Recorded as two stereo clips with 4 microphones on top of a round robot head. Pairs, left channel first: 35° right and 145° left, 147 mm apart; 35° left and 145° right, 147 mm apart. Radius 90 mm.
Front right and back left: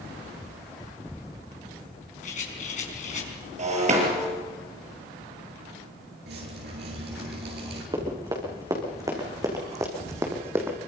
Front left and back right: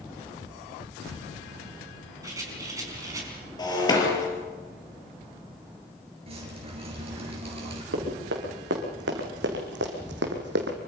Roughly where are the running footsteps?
Behind right.